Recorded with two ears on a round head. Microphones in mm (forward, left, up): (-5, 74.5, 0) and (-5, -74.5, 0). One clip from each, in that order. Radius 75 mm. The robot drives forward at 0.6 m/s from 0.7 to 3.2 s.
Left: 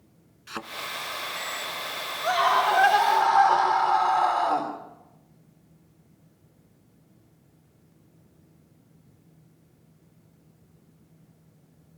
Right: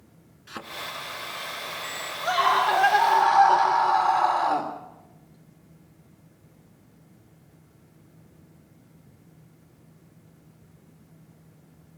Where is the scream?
5° left (ahead or behind), 2.5 m; by 4.7 s centre (ahead or behind), 3 m.